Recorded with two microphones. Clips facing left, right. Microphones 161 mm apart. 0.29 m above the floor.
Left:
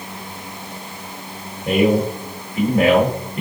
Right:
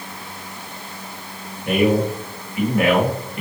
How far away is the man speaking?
About 1.3 m.